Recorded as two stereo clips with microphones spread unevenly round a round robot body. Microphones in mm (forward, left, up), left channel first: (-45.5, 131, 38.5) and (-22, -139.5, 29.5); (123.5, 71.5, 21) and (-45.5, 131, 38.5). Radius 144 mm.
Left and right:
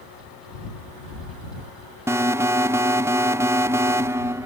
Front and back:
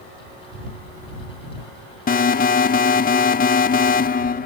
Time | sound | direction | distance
2.1 | an alarm | 10° right | ?